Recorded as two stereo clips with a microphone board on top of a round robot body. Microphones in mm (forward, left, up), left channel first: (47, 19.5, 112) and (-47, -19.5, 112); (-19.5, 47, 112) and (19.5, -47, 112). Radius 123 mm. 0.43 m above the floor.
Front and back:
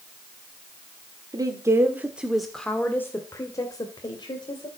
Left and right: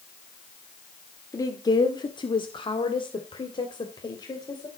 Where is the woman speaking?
160° left, 2 m; by 4.7 s 65° left, 3.5 m.